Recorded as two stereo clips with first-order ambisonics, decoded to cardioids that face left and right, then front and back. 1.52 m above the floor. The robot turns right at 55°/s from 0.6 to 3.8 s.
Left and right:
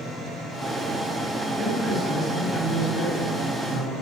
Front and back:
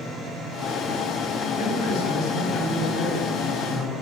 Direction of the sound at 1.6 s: 20° right.